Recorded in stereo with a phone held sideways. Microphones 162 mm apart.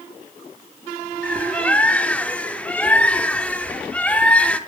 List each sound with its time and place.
1.2 s a bird: 10° left (ahead or behind), 0.5 m